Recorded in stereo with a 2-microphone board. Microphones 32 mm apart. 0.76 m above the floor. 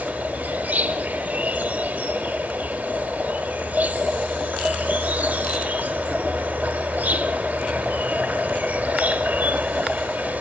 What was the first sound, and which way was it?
An insect, 65° right (ahead or behind).